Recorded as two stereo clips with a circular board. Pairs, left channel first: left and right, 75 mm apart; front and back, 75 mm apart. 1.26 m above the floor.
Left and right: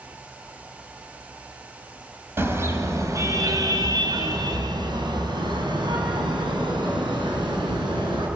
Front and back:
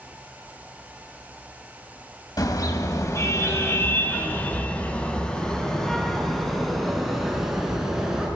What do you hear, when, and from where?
2.4 s a car horn: 30° right, 3.5 m; by 8.3 s 100° right, 7 m